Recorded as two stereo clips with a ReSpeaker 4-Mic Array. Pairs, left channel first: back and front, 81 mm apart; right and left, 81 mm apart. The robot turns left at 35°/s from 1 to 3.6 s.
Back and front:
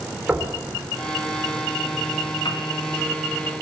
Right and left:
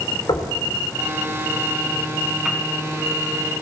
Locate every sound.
0.3 s knocking: 75° right, 3.5 m
2.5 s a piano: 175° left, 3.5 m; by 2.6 s 170° left, 3.5 m